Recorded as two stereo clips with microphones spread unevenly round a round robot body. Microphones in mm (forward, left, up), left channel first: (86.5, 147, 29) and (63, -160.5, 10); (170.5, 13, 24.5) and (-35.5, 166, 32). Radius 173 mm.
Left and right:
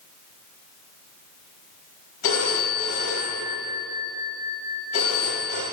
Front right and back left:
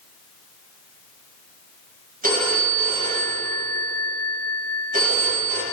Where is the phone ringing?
85° left, 4.5 m.